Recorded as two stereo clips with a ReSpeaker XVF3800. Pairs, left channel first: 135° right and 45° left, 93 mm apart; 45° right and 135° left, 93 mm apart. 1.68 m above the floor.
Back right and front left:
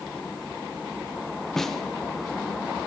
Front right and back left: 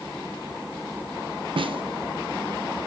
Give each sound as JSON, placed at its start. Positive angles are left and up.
{"t": 1.6, "sound": "a snare drum", "azimuth_deg": 140, "distance_m": 1.0}